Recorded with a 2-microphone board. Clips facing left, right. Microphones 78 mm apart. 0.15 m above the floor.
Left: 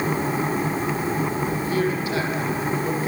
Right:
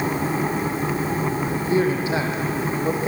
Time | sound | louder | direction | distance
1.5 | a man speaking | right 2 dB | 25° right (ahead or behind) | 5 m